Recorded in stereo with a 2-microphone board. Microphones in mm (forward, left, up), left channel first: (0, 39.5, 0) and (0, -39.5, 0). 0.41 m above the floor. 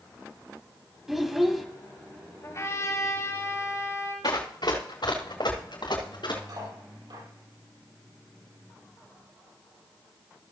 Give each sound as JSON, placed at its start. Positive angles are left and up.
{"t": 1.1, "sound": "a child speaking", "side_deg": -5, "distance_m": 1.6}
{"t": 2.4, "sound": "a trumpet", "side_deg": 40, "distance_m": 6.0}
{"t": 4.2, "sound": "running footsteps", "side_deg": 70, "distance_m": 2.5}
{"t": 6.5, "sound": "cutlery clinking", "side_deg": -85, "distance_m": 7.0}